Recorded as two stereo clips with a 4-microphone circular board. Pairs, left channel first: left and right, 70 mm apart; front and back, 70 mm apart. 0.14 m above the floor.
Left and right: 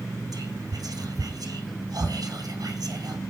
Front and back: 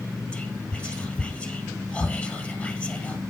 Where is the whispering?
75° right, 3 m.